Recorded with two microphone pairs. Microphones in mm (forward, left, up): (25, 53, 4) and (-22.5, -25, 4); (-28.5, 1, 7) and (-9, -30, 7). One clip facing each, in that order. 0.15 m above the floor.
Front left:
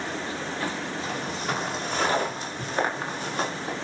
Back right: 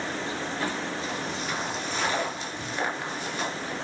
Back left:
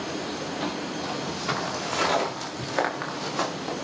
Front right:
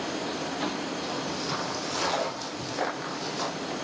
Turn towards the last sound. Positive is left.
turn(degrees=110)